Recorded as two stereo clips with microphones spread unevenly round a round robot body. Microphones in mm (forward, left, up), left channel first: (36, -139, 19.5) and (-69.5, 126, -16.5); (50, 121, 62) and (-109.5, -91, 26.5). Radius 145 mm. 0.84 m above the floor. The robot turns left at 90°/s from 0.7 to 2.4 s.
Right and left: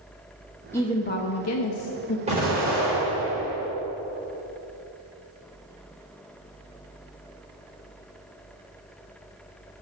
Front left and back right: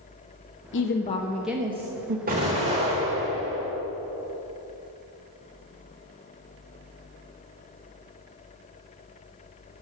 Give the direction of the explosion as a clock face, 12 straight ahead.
6 o'clock.